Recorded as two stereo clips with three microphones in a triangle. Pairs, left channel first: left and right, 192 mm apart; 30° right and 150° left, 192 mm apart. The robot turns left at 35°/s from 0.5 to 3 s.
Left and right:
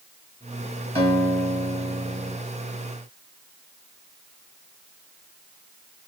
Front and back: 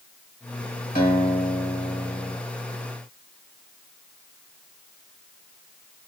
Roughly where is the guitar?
Ahead right.